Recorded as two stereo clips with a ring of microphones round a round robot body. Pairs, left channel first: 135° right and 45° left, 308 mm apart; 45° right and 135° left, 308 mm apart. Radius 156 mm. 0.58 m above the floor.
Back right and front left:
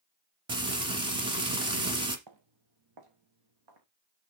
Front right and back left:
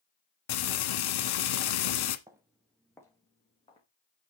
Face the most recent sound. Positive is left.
turn(degrees=30)